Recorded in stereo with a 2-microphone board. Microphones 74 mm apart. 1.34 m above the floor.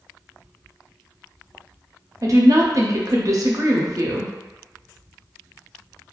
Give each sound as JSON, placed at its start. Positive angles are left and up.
{"t": 2.2, "sound": "a woman speaking", "side_deg": -50, "distance_m": 0.6}